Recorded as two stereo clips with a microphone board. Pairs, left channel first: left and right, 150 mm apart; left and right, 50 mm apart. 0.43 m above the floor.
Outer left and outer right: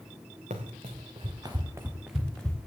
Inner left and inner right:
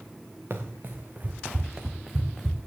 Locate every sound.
0.5 s running footsteps: 55° right (ahead or behind), 2 m; by 2.6 s 10° left (ahead or behind), 1.9 m